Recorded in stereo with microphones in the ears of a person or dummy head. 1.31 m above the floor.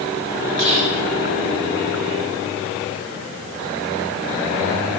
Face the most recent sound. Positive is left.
turn(degrees=-30)  # may be behind; listen again after turning